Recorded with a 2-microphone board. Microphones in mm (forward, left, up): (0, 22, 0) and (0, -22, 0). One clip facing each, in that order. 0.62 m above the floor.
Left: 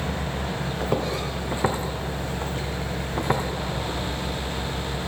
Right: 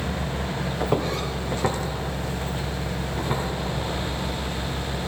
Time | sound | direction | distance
0.8 | footsteps | 5° right (ahead or behind) | 1.6 m